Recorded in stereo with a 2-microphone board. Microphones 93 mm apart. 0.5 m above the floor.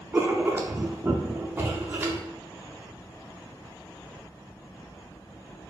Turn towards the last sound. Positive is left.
turn(degrees=-20)  # may be behind; listen again after turning